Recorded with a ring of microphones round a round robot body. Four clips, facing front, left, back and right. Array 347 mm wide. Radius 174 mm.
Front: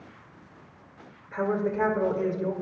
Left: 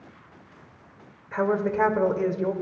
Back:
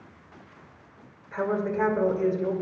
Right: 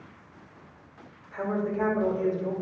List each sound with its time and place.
1.3 s a woman speaking: 90° left, 1.5 m